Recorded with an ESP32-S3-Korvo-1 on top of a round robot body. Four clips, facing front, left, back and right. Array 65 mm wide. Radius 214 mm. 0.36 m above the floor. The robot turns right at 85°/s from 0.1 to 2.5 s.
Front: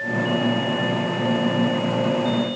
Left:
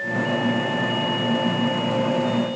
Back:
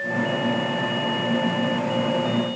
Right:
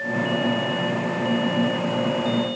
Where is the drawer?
No drawer in this recording.